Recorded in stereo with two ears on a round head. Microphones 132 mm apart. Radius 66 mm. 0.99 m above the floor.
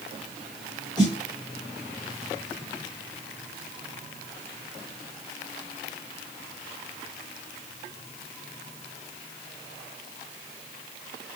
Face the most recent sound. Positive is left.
turn(degrees=40)  # may be behind; listen again after turning